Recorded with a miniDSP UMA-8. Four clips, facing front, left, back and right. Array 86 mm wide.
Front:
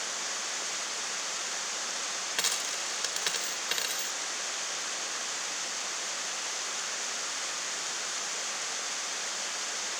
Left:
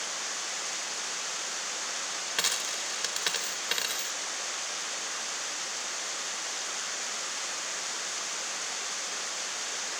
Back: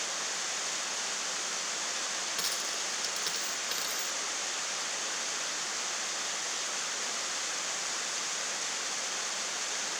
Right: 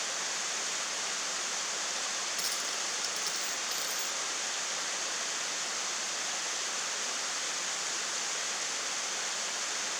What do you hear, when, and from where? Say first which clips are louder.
2.4 s a dropped coin: left 3 dB, front 2 dB; 65° left